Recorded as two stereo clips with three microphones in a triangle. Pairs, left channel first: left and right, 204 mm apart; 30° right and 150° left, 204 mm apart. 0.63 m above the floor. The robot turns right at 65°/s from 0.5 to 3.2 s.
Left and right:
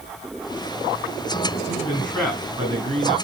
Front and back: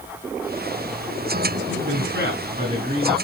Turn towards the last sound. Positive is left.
turn(degrees=-115)